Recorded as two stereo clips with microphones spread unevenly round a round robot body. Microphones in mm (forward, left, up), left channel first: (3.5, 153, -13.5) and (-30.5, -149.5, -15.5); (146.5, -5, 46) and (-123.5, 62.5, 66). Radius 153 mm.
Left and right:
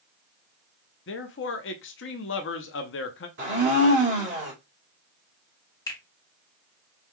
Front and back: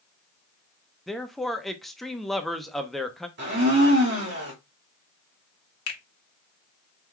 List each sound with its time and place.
1.1 s a man speaking: 70° left, 0.7 m
3.4 s a blender: 145° right, 2.0 m
5.9 s a finger snap: 5° left, 1.4 m